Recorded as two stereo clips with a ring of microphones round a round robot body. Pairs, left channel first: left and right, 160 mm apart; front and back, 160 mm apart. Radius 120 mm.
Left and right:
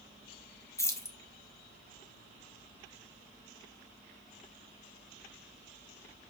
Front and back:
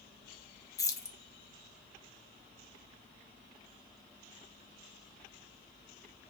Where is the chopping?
I don't hear chopping.